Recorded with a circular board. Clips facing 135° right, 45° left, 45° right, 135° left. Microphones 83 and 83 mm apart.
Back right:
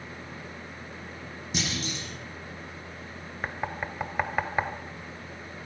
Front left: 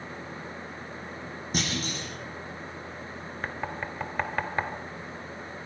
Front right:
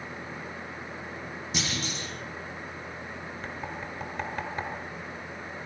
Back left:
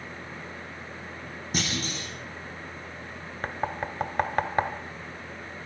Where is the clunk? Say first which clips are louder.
Front left 1 dB, back left 3 dB; 90° left, 7.5 m.